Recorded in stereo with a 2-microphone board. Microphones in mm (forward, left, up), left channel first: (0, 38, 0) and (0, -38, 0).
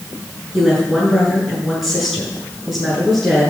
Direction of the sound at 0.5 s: Centre (ahead or behind).